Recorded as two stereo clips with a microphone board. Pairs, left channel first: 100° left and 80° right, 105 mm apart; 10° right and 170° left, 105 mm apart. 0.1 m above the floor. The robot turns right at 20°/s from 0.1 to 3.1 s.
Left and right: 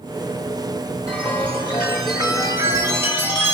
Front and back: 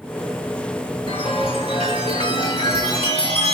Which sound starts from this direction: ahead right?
A chime, at 1.1 s.